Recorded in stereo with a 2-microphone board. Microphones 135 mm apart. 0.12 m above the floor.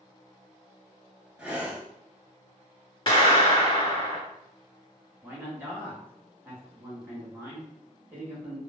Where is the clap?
35° left (ahead or behind), 1.7 m.